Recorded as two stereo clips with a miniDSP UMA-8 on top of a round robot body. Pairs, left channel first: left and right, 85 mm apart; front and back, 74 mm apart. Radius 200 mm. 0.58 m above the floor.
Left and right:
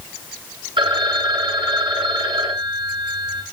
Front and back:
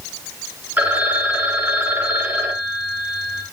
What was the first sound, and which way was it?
A phone ringing, 115° right.